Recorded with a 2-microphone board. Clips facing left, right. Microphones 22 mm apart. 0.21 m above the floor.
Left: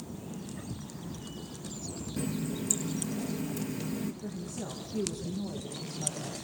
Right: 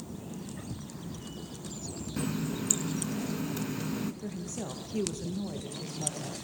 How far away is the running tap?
About 1.5 m.